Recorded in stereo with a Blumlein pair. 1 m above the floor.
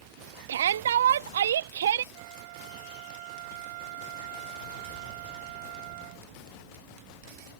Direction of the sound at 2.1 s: 50° right.